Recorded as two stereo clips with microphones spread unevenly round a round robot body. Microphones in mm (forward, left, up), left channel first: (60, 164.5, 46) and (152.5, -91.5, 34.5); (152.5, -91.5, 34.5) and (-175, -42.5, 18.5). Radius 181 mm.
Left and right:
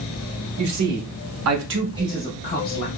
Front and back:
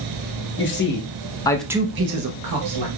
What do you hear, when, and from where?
0.6 s a man speaking: 65° right, 1.5 m; by 2.9 s 155° left, 1.1 m